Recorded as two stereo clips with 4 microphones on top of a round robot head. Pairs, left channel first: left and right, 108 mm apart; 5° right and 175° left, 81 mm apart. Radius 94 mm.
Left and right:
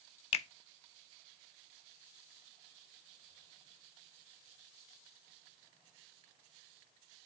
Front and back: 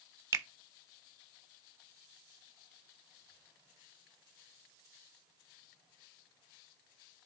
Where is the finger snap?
120° left, 0.9 m.